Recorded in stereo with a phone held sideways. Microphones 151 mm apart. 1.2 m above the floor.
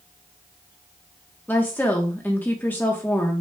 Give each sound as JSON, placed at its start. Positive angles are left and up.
{"t": 1.5, "sound": "a woman speaking", "side_deg": 15, "distance_m": 1.1}